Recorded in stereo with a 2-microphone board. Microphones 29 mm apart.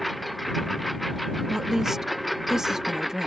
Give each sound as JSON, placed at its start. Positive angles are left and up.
{"t": 0.0, "sound": "a lawn mower", "side_deg": 0}
{"t": 1.5, "sound": "a woman speaking", "side_deg": -15}